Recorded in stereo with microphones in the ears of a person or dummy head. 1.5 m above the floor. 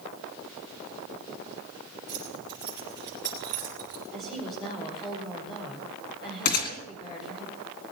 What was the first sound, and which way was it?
Keys jangling, 20° right (ahead or behind).